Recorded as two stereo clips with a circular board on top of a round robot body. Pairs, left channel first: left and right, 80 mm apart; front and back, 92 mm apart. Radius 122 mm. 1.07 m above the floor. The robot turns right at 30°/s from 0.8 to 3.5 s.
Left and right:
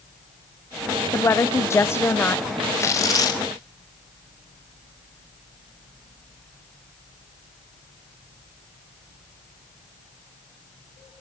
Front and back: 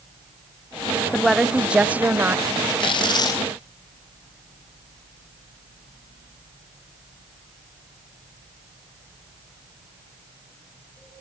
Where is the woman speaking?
90° left, 0.7 m; by 2.5 s 130° left, 0.7 m.